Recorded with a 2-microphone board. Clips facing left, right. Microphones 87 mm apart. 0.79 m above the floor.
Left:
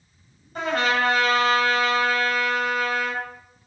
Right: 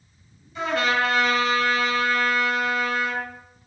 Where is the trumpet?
50° left (ahead or behind), 3 m.